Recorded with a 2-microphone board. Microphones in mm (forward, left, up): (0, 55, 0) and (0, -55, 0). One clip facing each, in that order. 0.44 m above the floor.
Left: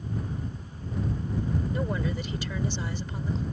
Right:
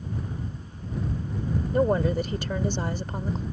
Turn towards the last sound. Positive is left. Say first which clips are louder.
# right 8 dB
turn(degrees=-45)  # may be behind; listen again after turning